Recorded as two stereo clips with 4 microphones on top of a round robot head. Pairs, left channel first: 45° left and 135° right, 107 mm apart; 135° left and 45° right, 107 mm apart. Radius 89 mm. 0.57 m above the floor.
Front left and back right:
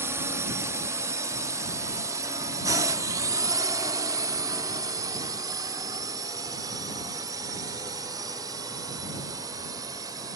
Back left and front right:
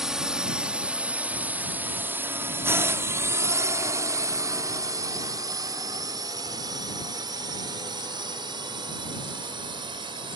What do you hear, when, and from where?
0.0 s a drone: 125° right; by 10.4 s 80° right